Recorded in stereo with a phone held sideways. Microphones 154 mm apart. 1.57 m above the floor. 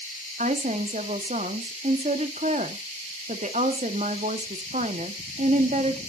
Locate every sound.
0.4 s a woman speaking: 50° right (ahead or behind), 1.4 m